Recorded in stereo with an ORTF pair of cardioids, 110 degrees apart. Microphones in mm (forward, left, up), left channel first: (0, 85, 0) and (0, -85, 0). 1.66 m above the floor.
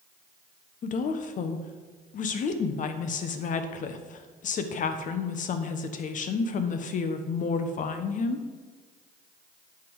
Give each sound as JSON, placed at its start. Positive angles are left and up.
{"t": 0.8, "sound": "a woman speaking", "azimuth_deg": 50, "distance_m": 1.1}